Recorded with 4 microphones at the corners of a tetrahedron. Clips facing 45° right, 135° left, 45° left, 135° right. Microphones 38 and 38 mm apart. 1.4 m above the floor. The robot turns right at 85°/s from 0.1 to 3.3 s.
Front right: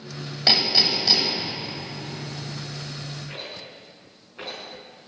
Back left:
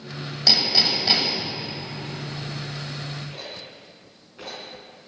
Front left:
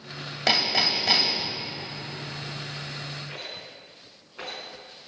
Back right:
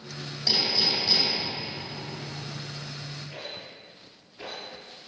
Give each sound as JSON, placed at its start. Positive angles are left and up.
{"t": 0.5, "sound": "hammering", "azimuth_deg": 20, "distance_m": 3.0}
{"t": 3.3, "sound": "a rattle", "azimuth_deg": 15, "distance_m": 4.5}